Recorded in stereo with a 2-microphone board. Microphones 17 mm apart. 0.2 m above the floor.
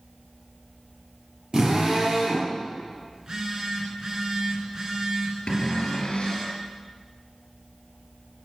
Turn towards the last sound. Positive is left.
turn(degrees=60)  # may be behind; listen again after turning